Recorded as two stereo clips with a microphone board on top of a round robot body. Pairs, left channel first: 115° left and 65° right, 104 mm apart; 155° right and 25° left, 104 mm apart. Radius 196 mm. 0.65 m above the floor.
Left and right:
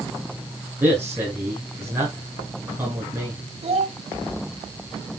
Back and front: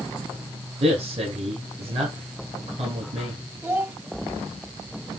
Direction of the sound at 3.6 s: 45° right.